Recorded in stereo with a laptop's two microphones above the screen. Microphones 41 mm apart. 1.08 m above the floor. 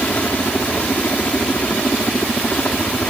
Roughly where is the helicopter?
Left.